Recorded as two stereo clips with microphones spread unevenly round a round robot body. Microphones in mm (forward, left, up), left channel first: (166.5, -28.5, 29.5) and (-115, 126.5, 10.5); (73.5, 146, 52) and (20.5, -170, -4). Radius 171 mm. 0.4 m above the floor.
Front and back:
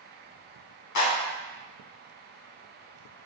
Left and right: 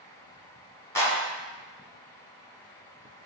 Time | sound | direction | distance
0.9 | a clap | 5° right | 1.9 m